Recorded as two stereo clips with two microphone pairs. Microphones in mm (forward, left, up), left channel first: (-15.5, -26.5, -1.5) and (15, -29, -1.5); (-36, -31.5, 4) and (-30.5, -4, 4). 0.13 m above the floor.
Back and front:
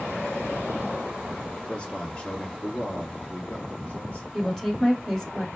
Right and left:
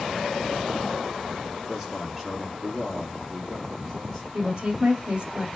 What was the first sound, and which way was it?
A man speaking, 150° left.